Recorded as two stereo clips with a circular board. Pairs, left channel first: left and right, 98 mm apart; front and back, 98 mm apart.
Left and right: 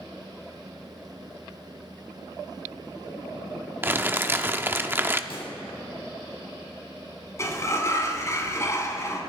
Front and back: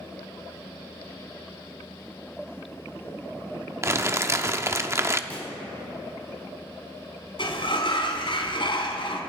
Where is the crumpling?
145° right, 0.6 m.